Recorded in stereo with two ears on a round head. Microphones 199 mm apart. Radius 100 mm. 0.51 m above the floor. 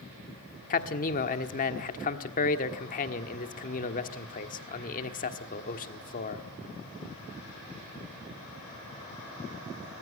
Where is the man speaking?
40° left (ahead or behind), 1.5 m.